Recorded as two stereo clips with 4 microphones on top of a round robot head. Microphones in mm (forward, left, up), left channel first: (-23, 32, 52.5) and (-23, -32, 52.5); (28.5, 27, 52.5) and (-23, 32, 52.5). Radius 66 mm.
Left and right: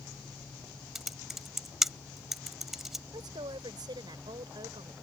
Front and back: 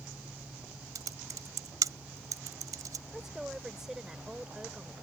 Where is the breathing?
No breathing in this recording.